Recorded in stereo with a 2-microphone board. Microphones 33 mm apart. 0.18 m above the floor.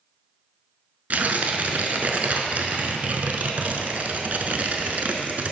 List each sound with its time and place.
1.1 s tearing paper: 55° right (ahead or behind), 0.5 m